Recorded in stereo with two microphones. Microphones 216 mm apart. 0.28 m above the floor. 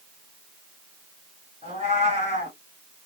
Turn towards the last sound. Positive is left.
turn(degrees=-30)  # may be behind; listen again after turning